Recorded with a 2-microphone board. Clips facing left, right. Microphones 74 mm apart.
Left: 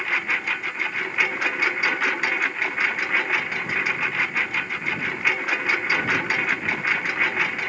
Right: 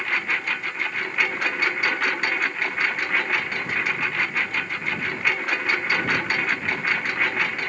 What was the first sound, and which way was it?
A lawn mower, centre (ahead or behind).